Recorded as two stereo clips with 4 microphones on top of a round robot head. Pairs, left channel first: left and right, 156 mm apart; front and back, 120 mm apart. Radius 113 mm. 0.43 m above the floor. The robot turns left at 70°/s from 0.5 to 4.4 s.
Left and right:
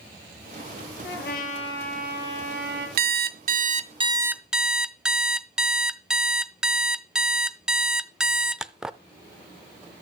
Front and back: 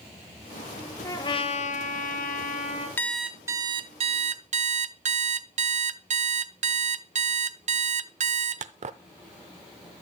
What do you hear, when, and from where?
1.0 s a trumpet: 65° left, 1.7 m; by 2.9 s 65° right, 1.7 m
3.0 s an alarm clock: 75° right, 0.6 m; by 9.0 s 175° right, 0.6 m